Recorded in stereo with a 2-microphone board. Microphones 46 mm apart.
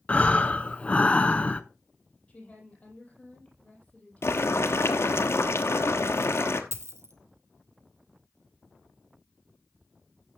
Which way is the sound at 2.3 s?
25° left (ahead or behind).